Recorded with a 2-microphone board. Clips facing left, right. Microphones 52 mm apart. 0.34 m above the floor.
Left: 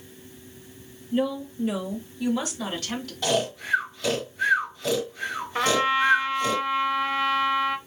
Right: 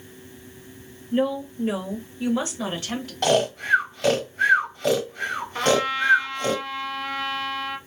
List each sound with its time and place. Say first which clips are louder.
1.1 s a woman speaking: right 2 dB; 35° right (ahead or behind), 1.1 m; by 3.1 s 20° right (ahead or behind), 1.2 m
3.2 s snoring: right 5 dB; 55° right (ahead or behind), 1.1 m
5.5 s a trumpet: even; 20° left (ahead or behind), 0.6 m